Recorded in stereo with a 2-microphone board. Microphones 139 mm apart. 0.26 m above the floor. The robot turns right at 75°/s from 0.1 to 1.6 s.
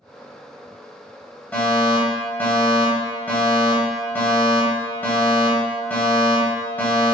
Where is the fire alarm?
15° left (ahead or behind), 1.9 m.